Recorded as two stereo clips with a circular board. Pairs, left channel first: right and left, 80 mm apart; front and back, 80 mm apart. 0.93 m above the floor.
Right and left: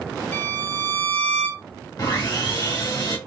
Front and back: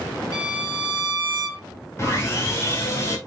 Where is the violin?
35° right, 1.2 m.